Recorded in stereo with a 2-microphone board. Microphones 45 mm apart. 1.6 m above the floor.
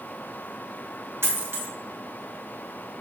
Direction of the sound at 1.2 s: 60° right (ahead or behind).